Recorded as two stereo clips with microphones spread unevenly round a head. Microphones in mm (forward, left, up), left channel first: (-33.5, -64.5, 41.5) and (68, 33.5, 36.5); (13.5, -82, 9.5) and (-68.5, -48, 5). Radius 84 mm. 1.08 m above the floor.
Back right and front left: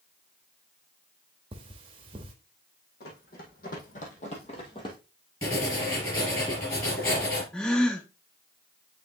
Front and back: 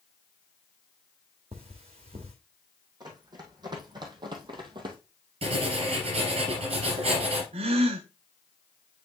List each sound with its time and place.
1.5 s cutlery clinking: 105° left, 1.1 m
3.0 s running footsteps: 165° right, 2.5 m; by 5.0 s 165° left, 1.6 m
5.4 s writing: 155° left, 3 m
7.5 s a gasp: 140° left, 0.6 m